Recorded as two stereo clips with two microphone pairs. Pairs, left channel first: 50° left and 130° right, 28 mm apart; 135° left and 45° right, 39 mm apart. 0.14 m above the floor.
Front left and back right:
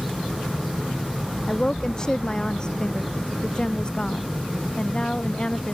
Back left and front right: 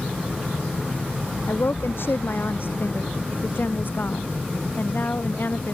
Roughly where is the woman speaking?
Behind left.